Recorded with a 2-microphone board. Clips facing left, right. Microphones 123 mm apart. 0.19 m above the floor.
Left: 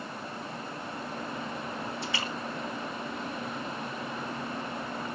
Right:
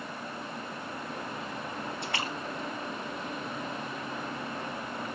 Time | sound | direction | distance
2.0 | a splash | 60° right (ahead or behind) | 2.5 m